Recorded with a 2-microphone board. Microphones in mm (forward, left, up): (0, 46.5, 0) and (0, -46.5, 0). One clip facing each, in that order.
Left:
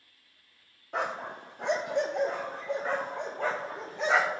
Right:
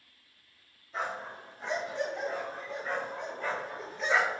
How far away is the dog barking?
About 1.4 m.